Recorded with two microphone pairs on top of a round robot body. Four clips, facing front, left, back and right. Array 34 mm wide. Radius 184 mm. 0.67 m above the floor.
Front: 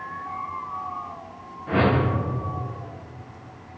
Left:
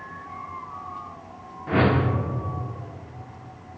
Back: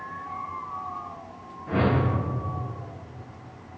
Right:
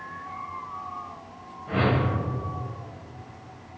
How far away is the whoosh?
About 1.2 m.